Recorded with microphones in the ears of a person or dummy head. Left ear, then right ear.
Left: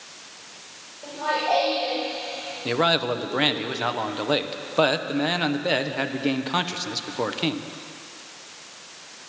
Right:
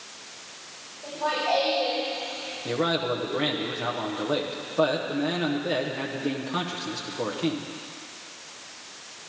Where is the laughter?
35° left (ahead or behind), 4.5 m; by 3.6 s 20° right (ahead or behind), 2.5 m.